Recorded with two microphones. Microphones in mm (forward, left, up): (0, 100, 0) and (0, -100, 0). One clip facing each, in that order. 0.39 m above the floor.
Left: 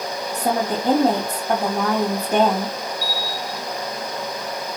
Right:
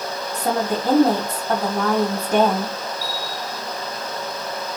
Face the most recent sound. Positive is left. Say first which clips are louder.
# left 1 dB
turn(degrees=40)  # may be behind; listen again after turning